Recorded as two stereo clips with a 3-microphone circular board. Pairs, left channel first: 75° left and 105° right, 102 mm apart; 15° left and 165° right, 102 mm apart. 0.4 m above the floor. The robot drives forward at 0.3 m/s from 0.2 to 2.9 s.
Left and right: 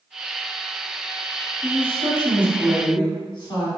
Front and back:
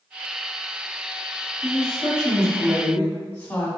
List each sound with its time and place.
1.6 s a woman speaking: 65° left, 1.5 m; by 3.7 s 85° left, 1.5 m